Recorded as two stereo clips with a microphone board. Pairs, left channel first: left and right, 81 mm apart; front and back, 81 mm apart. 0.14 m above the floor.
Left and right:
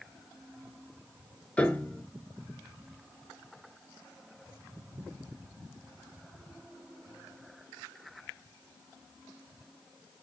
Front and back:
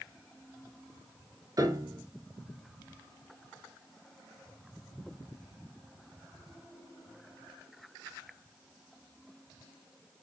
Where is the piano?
160° left, 0.8 m.